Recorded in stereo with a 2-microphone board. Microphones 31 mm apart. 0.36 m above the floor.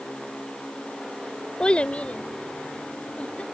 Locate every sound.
1.6 s a child speaking: 35° left (ahead or behind); by 3.4 s 45° left (ahead or behind)